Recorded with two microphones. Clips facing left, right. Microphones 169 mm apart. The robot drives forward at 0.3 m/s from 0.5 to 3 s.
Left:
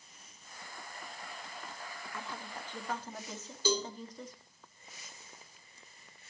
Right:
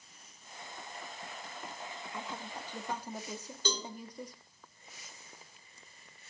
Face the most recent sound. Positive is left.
turn(degrees=10)  # may be behind; listen again after turning